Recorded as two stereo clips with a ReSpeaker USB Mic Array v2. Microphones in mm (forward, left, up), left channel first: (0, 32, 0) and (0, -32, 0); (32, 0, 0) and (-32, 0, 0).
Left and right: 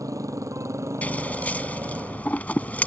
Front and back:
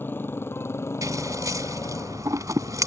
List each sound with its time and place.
0.0 s a motorcycle: 60° right; by 2.9 s 30° right
1.0 s scissors: 155° left